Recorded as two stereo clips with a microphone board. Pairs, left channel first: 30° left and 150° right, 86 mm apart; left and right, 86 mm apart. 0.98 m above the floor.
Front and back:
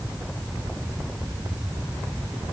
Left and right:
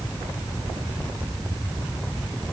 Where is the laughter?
I don't hear laughter.